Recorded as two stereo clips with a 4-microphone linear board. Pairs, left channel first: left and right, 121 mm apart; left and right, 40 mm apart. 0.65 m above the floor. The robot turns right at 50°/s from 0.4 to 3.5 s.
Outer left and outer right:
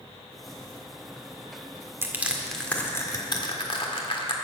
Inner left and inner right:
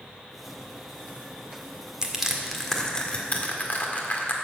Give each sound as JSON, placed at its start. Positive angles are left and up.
{"t": 2.0, "sound": "crushing", "side_deg": -20, "distance_m": 1.6}